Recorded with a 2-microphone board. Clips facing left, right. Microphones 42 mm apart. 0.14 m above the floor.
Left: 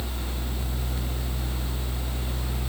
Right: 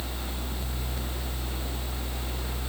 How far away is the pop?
No pop in this recording.